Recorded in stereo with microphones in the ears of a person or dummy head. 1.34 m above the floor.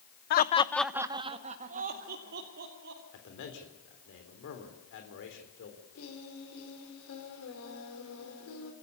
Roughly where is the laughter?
Left.